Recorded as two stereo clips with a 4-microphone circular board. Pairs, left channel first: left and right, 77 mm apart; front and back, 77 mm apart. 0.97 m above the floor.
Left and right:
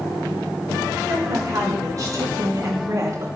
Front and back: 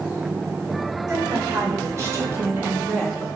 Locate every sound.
1.1 s a woman speaking: 135° right, 3.5 m; by 3.3 s 65° right, 0.9 m